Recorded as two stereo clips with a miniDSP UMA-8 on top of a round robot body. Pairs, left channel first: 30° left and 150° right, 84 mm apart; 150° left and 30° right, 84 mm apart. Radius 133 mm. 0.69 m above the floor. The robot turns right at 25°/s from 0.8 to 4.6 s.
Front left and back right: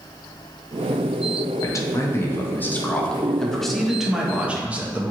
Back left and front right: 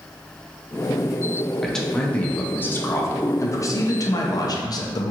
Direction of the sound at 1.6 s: 65° left.